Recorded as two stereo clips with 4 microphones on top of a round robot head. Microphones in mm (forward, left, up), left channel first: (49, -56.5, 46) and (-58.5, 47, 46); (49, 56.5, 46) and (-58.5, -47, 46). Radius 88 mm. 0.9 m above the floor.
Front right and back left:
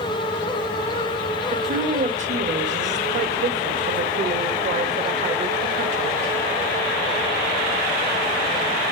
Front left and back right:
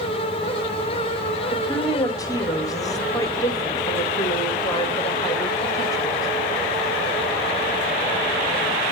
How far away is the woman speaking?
About 1.6 m.